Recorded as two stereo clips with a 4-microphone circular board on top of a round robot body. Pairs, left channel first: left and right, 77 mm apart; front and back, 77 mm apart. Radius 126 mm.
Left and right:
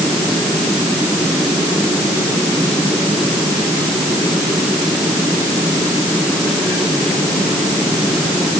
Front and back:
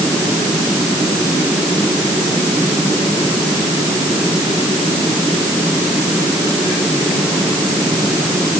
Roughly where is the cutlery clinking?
I don't hear cutlery clinking.